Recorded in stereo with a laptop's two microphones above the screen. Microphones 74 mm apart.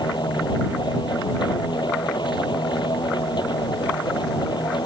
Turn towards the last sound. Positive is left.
turn(degrees=85)